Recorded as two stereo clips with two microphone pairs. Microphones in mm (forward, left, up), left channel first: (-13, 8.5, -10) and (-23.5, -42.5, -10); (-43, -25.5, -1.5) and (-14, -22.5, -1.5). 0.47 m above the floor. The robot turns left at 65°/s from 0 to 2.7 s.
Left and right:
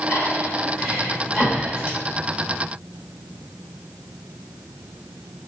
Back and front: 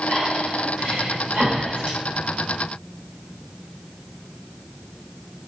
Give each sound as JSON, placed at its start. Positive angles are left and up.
{"t": 0.1, "sound": "breathing", "azimuth_deg": 80, "distance_m": 1.7}